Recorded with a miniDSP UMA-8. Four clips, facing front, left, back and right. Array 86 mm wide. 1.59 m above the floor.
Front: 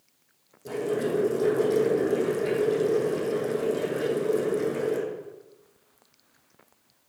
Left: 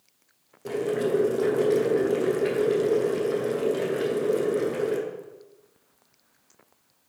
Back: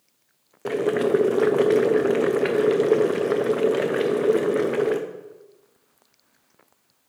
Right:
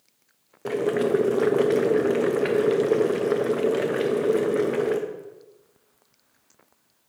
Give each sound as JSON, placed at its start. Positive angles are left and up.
{"t": 0.7, "sound": "boiling", "azimuth_deg": -150, "distance_m": 0.9}